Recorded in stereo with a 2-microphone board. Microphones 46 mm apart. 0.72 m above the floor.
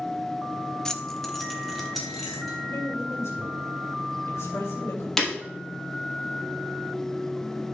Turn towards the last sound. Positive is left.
turn(degrees=10)  # may be behind; listen again after turning